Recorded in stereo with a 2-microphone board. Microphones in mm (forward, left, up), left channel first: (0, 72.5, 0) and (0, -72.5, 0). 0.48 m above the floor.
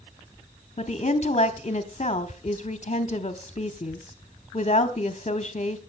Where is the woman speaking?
45° left (ahead or behind), 1.1 m.